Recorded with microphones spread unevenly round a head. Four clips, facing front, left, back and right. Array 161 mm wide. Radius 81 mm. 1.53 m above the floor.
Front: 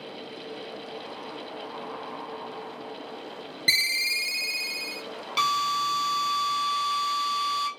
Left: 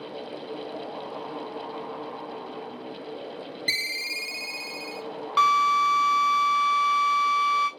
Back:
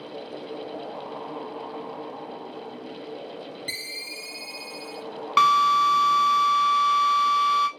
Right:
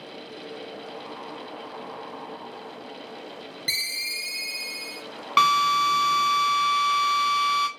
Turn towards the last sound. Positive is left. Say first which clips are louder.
# even, back 8 dB
turn(degrees=-115)